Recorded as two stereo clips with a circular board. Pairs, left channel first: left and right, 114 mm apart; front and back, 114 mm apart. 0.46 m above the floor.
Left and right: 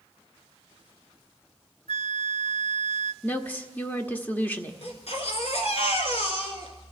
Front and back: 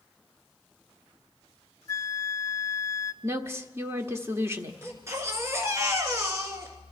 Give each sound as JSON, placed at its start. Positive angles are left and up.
{"t": 1.9, "sound": "a flute", "azimuth_deg": 60, "distance_m": 0.5}
{"t": 3.2, "sound": "a woman speaking", "azimuth_deg": 145, "distance_m": 0.9}
{"t": 4.8, "sound": "a baby crying", "azimuth_deg": 115, "distance_m": 2.0}